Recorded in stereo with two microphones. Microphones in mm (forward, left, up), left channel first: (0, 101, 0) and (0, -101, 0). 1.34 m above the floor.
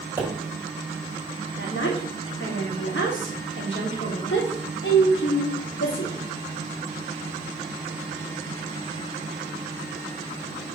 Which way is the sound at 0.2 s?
10° right (ahead or behind).